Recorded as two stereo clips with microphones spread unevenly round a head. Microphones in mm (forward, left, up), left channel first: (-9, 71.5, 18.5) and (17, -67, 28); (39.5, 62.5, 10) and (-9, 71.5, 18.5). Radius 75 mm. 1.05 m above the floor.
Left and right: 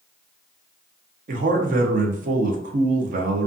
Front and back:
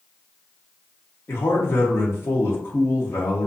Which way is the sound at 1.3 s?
50° right.